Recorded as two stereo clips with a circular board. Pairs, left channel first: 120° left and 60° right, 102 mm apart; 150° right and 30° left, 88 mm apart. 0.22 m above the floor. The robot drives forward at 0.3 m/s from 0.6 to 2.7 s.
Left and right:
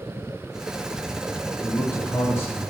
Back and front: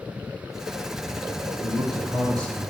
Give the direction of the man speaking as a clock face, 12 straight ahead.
8 o'clock.